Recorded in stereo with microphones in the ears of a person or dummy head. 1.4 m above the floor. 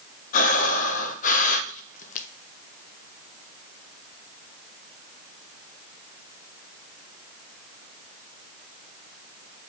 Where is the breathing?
40° left (ahead or behind), 0.6 m.